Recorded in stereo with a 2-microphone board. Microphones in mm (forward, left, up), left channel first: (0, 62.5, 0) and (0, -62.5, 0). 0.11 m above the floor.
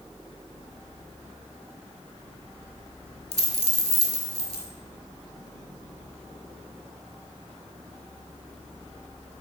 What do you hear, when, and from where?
3.3 s a dropped coin: 55° left (ahead or behind), 0.7 m